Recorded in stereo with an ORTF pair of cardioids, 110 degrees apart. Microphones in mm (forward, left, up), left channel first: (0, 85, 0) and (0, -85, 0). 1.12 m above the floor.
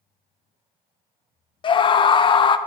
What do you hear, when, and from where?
1.6 s a scream: 30° left, 0.6 m